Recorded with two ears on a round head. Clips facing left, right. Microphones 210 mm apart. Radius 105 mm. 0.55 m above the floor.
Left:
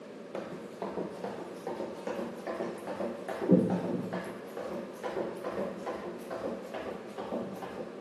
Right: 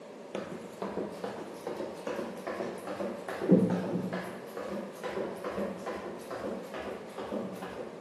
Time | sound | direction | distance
0.3 | running footsteps | 20° right (ahead or behind) | 0.6 m